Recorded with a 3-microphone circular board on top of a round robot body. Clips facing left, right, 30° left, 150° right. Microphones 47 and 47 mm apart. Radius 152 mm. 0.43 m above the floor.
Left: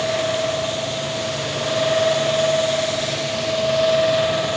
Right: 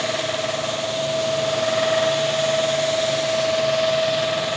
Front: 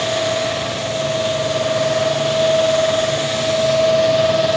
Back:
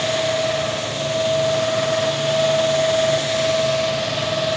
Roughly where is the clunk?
No clunk in this recording.